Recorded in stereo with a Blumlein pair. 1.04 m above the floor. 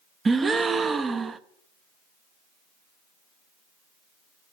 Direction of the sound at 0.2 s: 15° right.